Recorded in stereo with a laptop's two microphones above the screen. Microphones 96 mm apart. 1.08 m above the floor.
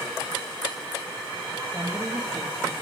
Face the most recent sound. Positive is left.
turn(degrees=-20)  # may be behind; listen again after turning